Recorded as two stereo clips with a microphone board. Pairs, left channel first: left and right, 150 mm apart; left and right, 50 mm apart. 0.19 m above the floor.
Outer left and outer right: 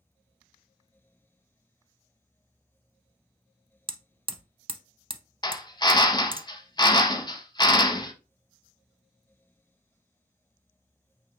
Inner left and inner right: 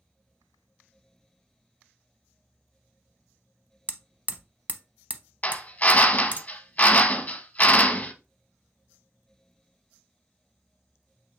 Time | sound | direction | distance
3.9 | hammering | 35° right (ahead or behind) | 0.5 m
5.4 | a drill | 30° left (ahead or behind) | 0.6 m